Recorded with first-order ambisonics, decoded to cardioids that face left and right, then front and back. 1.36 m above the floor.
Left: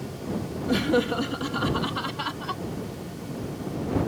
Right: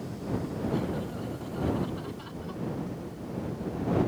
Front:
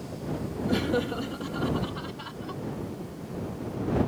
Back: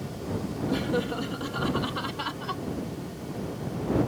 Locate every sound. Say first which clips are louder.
0.7 s laughter: left 13 dB, front 1 dB; 75° left; by 2.6 s 125° left